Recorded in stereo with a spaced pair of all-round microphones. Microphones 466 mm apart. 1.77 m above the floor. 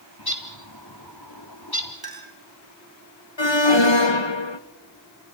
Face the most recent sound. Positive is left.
turn(degrees=75)  # may be behind; listen again after turning